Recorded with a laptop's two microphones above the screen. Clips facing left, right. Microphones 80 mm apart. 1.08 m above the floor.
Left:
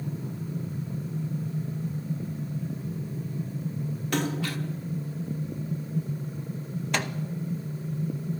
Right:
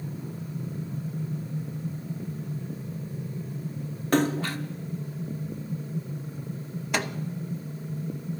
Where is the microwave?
10° right (ahead or behind), 0.8 m.